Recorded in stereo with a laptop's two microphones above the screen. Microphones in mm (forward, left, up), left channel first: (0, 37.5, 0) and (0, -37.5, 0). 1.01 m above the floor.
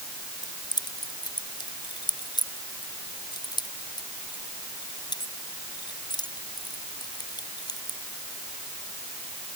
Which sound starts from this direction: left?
Keys jangling, at 0.4 s.